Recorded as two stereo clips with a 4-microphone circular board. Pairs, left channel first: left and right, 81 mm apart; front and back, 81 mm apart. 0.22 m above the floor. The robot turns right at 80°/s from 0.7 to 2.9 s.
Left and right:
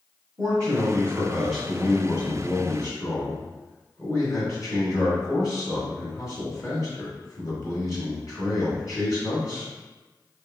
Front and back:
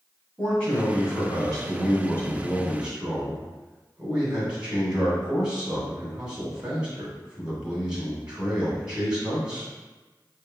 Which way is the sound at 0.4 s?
70° right.